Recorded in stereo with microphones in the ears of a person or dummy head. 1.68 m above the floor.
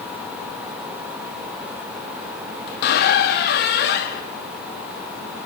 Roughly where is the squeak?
Left.